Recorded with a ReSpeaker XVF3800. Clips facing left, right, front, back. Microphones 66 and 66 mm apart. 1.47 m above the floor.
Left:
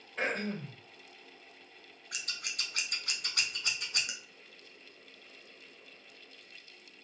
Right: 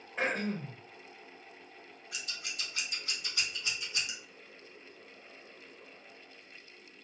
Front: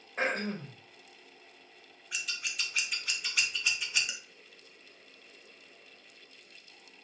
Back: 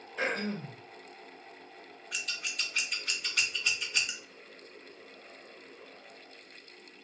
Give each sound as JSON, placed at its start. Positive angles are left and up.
{"t": 0.2, "sound": "throat clearing", "azimuth_deg": -15, "distance_m": 1.1}
{"t": 2.1, "sound": "scissors", "azimuth_deg": 85, "distance_m": 0.5}